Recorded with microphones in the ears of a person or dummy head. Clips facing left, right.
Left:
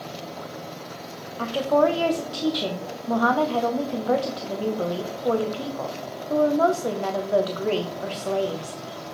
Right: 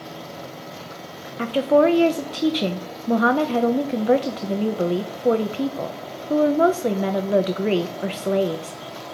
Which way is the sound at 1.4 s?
25° right (ahead or behind).